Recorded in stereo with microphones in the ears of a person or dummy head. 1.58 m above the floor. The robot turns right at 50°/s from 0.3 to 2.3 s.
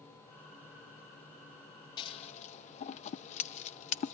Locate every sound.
2.0 s scissors: 20° left (ahead or behind), 0.6 m; by 4.1 s 35° left (ahead or behind), 0.6 m